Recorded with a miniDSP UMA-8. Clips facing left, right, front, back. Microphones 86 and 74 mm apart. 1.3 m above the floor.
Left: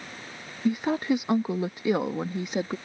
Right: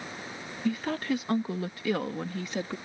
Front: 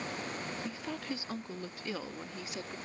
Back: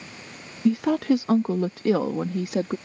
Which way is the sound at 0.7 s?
160° left.